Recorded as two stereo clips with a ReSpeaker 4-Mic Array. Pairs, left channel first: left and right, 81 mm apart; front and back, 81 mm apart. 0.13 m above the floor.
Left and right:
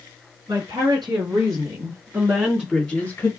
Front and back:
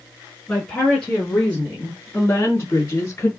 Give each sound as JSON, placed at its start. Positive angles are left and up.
{"t": 0.5, "sound": "a woman speaking", "azimuth_deg": -75, "distance_m": 3.0}